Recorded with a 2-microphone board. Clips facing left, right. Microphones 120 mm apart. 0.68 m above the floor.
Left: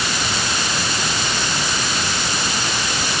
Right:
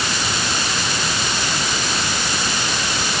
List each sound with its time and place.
Only background noise.